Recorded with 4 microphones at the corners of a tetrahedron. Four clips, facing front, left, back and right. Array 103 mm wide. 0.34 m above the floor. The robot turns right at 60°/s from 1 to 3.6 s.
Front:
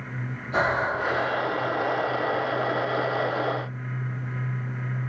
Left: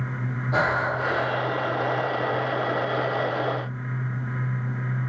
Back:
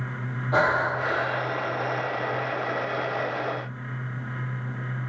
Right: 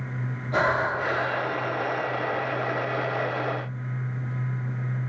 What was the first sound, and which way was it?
Breathing, 165° left.